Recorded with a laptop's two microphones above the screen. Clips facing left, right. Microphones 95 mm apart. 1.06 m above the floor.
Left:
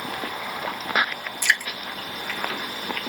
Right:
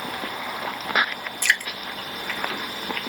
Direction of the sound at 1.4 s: 10° left (ahead or behind).